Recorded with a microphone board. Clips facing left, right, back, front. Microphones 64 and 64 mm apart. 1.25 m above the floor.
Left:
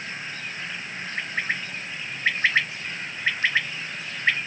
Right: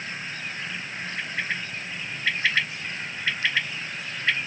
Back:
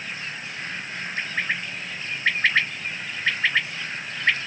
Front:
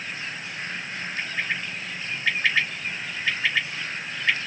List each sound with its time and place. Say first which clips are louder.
1.2 s a bird: left 2 dB, back 2 dB; 140° left, 3 m